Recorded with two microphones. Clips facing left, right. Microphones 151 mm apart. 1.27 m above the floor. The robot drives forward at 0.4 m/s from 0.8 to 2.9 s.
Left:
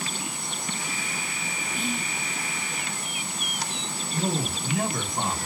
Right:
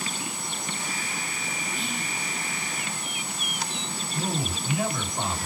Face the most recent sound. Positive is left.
turn(degrees=50)  # may be behind; listen again after turning